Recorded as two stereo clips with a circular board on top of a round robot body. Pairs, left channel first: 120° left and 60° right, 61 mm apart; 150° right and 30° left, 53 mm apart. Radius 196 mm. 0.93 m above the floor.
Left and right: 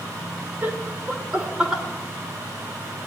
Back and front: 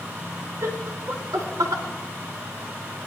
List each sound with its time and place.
0.6 s laughter: 5° right, 4 m; by 1.8 s 20° left, 4 m